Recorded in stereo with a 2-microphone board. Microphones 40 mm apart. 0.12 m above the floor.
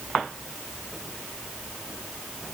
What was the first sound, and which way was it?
Only background noise.